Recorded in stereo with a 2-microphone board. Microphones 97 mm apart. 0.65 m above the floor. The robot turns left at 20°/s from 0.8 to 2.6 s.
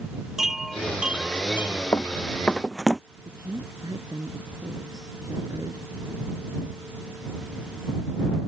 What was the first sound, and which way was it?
A chime, 5° right (ahead or behind).